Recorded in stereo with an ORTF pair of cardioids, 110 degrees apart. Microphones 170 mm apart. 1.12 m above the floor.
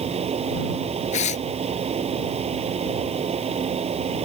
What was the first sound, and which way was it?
A fan, 40° right.